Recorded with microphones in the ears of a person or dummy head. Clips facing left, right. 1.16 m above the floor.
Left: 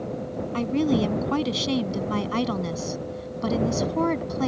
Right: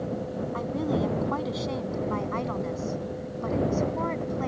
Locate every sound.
0.5 s a woman speaking: 40° left (ahead or behind); by 4.5 s 55° left (ahead or behind)